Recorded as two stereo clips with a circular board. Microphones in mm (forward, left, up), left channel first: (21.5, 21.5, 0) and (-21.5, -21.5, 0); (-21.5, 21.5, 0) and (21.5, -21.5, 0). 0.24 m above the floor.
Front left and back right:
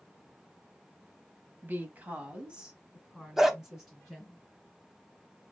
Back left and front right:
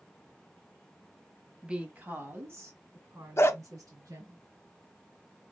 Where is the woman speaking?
115° right, 1.2 m; by 4.4 s 45° right, 3 m.